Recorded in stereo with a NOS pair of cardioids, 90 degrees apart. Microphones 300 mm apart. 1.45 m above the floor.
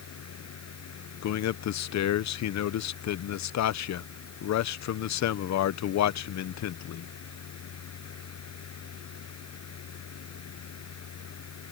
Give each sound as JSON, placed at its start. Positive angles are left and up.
{"t": 0.0, "sound": "a fan", "azimuth_deg": 60}
{"t": 1.2, "sound": "a man speaking", "azimuth_deg": 65}